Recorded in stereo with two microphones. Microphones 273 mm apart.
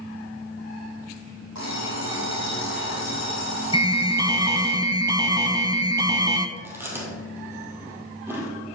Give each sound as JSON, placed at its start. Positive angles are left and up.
{"t": 1.6, "sound": "an alarm clock", "side_deg": 80, "distance_m": 3.0}
{"t": 3.7, "sound": "an alarm", "side_deg": -15, "distance_m": 1.0}
{"t": 6.6, "sound": "chewing", "side_deg": -10, "distance_m": 2.0}